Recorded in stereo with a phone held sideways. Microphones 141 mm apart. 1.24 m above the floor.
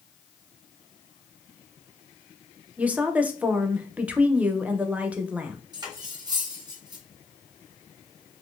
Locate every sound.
2.8 s a woman speaking: 10° right (ahead or behind), 0.5 m
5.7 s cutlery clinking: 30° right (ahead or behind), 0.9 m